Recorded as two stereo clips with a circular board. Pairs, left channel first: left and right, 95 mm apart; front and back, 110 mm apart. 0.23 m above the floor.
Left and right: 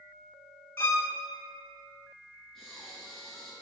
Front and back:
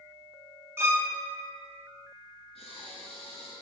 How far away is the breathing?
About 3 m.